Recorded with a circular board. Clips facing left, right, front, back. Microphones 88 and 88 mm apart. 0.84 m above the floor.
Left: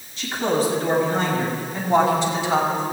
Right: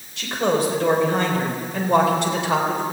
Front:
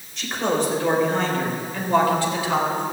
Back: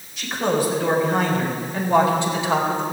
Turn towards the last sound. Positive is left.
turn(degrees=-120)